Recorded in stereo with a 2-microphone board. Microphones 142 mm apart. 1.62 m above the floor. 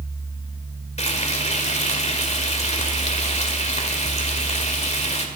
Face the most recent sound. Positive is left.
turn(degrees=50)  # may be behind; listen again after turning